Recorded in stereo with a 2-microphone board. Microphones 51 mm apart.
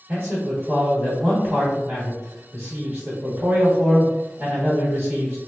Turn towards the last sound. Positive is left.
turn(degrees=-35)  # may be behind; listen again after turning